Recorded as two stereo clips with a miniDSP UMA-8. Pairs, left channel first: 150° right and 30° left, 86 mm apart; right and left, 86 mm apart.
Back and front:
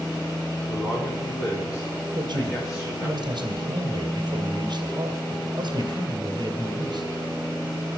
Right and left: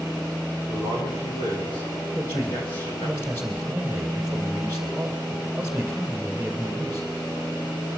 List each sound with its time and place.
0.7 s a man speaking: 100° right, 8.5 m
2.1 s a man speaking: 20° left, 2 m